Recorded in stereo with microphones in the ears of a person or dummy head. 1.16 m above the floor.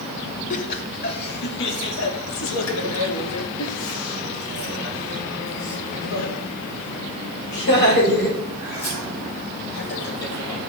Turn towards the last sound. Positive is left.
turn(degrees=50)  # may be behind; listen again after turning